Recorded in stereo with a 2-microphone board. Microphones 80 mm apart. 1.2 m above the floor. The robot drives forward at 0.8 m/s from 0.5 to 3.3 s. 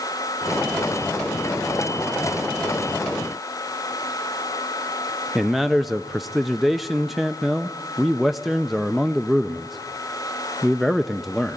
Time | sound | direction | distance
5.3 | a man speaking | centre (ahead or behind) | 0.5 m